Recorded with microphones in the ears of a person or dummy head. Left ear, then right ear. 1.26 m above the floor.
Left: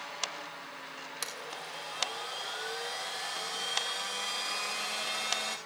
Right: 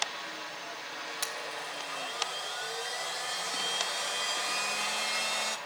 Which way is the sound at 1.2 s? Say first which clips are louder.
Right 2 dB; 5° left (ahead or behind).